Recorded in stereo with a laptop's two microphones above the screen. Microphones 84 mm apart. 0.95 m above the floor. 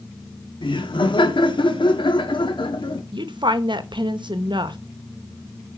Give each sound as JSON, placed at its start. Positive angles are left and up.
{"t": 0.6, "sound": "laughter", "side_deg": 75, "distance_m": 2.0}
{"t": 3.1, "sound": "a woman speaking", "side_deg": -65, "distance_m": 1.0}